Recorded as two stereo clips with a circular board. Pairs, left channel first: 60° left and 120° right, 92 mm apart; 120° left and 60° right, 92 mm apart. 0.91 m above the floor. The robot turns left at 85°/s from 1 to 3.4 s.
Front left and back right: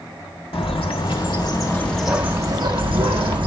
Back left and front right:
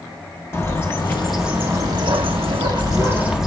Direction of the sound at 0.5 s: 60° left.